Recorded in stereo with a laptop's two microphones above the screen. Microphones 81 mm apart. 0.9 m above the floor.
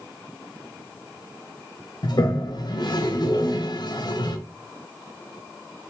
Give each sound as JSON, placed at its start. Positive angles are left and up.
{"t": 2.0, "sound": "a toilet flushing", "side_deg": 55, "distance_m": 0.6}